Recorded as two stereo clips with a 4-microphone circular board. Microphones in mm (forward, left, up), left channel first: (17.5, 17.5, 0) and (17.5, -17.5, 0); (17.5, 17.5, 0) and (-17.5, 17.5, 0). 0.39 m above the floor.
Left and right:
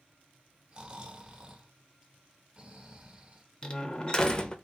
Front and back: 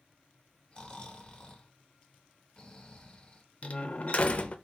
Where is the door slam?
35° left, 0.6 m.